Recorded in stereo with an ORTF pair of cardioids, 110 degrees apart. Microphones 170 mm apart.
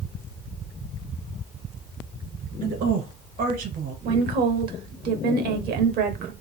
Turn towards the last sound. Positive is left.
turn(degrees=-65)